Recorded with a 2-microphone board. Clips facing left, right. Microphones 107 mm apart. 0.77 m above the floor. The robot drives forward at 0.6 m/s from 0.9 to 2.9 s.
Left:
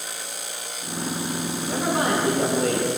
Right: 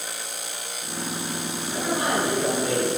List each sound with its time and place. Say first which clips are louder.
1.6 s a man speaking: left 3 dB; 80° left, 10 m